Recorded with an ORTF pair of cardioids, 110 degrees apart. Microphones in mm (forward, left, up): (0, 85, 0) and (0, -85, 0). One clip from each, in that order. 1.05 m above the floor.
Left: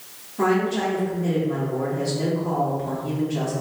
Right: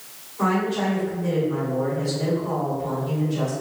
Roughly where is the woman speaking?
Ahead left.